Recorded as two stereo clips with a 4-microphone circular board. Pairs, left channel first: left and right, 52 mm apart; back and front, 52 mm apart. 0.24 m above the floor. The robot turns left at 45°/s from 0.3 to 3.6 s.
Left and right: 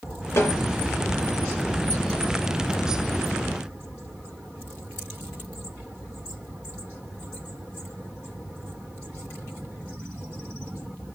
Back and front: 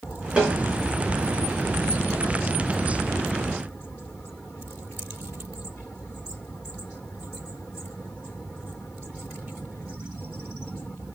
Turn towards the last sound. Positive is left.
turn(degrees=-85)